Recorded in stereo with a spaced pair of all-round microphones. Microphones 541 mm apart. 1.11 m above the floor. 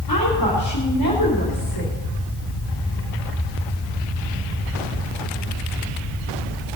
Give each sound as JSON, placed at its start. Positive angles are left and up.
{"t": 0.1, "sound": "a woman speaking", "side_deg": 40, "distance_m": 3.0}